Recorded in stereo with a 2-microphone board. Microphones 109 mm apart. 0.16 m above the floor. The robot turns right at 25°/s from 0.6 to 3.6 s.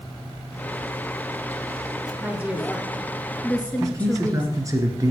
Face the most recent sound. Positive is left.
turn(degrees=-30)  # may be behind; listen again after turning